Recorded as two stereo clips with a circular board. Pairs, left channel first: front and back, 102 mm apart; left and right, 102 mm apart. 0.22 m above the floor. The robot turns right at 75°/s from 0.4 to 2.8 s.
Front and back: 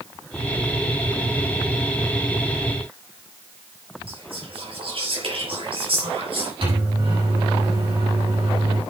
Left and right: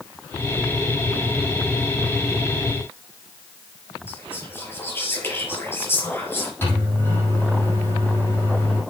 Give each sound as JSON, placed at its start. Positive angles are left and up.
{"t": 4.1, "sound": "whispering", "azimuth_deg": 155, "distance_m": 4.5}
{"t": 6.6, "sound": "a microwave", "azimuth_deg": 155, "distance_m": 6.0}